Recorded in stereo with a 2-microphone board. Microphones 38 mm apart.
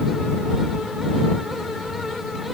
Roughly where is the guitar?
I don't hear a guitar.